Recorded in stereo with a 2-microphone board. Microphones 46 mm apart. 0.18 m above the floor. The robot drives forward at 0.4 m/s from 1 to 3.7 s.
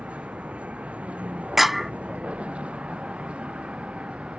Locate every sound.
0.0 s a vehicle: 30° right (ahead or behind); by 4.4 s 25° right (ahead or behind)
1.6 s a clap: 5° right (ahead or behind)